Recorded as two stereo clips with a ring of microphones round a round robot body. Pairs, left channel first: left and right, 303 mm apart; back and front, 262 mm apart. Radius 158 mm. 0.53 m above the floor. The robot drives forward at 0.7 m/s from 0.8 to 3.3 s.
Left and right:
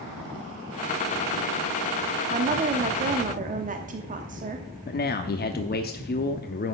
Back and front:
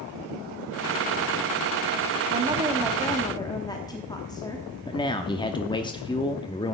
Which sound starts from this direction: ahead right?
A woman speaking, at 2.3 s.